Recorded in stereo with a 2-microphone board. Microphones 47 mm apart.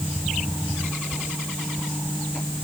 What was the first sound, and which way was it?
Only background noise.